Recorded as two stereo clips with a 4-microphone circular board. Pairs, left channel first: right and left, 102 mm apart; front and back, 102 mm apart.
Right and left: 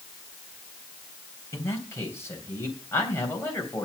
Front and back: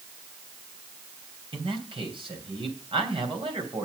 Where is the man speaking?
155° right, 3 m.